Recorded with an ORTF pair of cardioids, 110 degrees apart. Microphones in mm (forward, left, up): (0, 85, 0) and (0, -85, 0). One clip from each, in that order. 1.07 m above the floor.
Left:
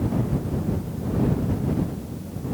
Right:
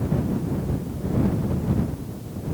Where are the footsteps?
I don't hear footsteps.